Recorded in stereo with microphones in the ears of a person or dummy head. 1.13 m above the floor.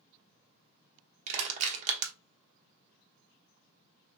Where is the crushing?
40° right (ahead or behind), 0.9 m.